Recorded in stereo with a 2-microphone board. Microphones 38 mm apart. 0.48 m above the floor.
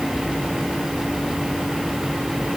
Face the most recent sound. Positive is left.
No sound to turn to.